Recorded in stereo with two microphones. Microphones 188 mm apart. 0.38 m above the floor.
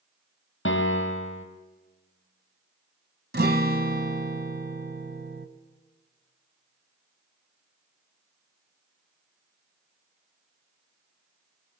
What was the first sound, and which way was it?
A piano, 85° left.